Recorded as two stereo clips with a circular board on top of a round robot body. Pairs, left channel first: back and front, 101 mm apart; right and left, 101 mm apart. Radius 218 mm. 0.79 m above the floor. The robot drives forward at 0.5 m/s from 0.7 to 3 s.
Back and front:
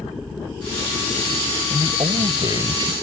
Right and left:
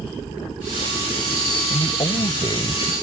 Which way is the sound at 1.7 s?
45° right.